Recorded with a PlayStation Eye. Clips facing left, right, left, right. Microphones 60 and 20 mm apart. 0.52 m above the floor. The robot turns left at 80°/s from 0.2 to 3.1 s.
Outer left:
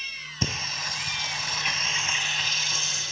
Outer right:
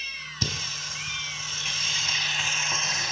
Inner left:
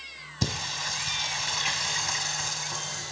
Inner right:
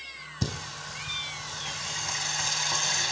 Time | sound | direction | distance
0.4 | singing | 155° left | 3 m